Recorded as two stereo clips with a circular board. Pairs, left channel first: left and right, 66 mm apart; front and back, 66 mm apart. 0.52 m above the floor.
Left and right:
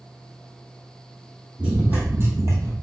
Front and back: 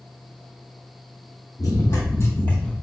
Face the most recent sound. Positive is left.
turn(degrees=-75)